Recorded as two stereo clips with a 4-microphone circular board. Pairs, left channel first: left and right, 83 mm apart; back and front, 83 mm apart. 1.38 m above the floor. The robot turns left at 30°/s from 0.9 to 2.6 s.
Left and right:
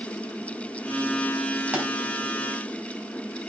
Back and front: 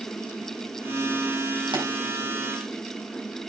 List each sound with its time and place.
1.7 s a pop: 20° right, 4.5 m; by 1.9 s 25° right, 4.5 m